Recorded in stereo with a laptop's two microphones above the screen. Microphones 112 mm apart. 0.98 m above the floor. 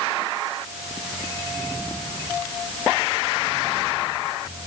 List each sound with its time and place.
Only background noise.